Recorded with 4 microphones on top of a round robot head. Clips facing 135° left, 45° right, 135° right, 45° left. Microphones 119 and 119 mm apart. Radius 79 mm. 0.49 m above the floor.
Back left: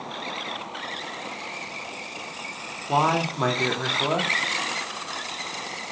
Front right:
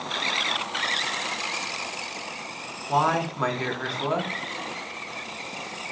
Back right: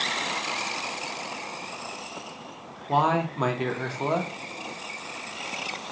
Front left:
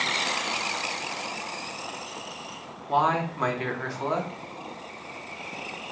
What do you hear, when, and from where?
2.9 s a man speaking: straight behind, 0.8 m